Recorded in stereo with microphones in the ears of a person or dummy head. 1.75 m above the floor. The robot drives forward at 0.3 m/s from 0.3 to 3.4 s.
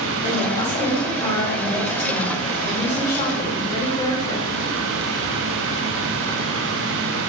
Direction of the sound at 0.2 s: 45° left (ahead or behind).